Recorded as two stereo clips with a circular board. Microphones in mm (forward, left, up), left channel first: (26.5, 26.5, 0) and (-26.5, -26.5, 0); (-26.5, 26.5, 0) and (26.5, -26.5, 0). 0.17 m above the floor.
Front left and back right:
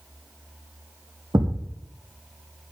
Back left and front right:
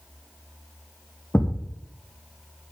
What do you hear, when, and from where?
1.3 s a thud: 160° right, 2.5 m